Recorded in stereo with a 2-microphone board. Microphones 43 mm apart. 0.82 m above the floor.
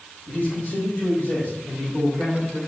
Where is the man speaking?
55° left (ahead or behind), 3 m; by 2.6 s 75° left (ahead or behind), 6 m.